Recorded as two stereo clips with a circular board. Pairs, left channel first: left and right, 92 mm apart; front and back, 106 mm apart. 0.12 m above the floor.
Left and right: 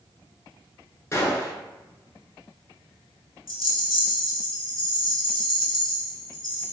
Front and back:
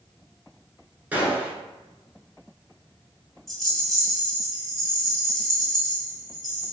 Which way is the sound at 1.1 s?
115° left.